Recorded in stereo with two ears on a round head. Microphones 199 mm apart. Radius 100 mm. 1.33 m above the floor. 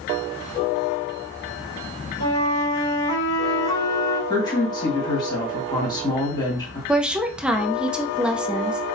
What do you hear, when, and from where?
2.2 s a flute: 75° left (ahead or behind), 2.5 m
4.3 s a woman speaking: 25° left (ahead or behind), 1.9 m
6.9 s a woman speaking: 5° right (ahead or behind), 0.6 m